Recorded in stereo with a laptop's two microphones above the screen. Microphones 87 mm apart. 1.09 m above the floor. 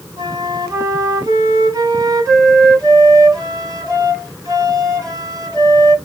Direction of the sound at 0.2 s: 50° right (ahead or behind).